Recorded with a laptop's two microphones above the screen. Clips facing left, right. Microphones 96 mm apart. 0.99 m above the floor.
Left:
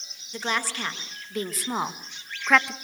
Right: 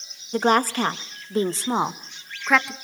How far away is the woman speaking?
About 1.7 m.